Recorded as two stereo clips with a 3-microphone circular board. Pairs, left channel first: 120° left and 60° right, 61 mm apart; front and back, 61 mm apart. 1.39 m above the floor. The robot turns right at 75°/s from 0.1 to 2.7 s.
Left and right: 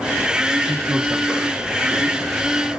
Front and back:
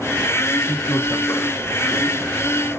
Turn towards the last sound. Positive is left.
turn(degrees=115)